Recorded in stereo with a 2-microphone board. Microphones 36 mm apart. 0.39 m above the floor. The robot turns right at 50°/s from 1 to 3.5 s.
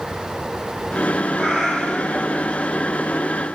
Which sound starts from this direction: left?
A cat meowing, at 1.4 s.